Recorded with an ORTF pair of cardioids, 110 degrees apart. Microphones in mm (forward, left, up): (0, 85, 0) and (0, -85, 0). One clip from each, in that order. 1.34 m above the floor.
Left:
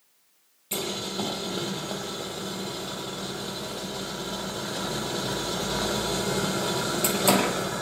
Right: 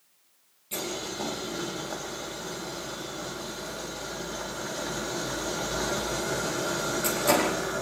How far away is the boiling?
About 9.5 m.